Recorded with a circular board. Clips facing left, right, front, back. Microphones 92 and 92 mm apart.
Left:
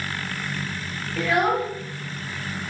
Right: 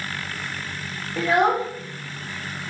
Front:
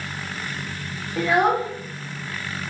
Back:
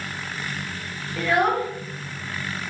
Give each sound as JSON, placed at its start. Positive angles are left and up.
{"t": 1.2, "sound": "a child speaking", "azimuth_deg": -55, "distance_m": 0.5}